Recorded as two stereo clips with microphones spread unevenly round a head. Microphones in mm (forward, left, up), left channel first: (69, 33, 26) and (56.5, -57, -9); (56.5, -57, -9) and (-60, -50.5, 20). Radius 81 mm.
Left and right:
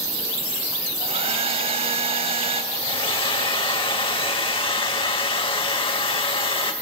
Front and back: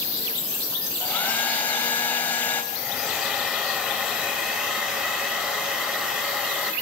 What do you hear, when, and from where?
1.0 s a hair dryer: 80° right, 4 m
2.7 s a hair dryer: 100° left, 1.9 m